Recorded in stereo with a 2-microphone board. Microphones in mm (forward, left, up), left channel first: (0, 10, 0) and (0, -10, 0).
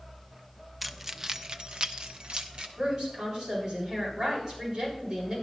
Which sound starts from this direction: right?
A woman speaking, at 2.8 s.